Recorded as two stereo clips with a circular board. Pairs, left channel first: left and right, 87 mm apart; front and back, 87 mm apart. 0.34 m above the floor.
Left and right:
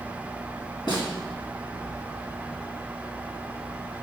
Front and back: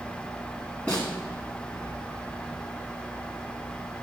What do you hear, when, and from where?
0.9 s a snare drum: 75° left, 3.5 m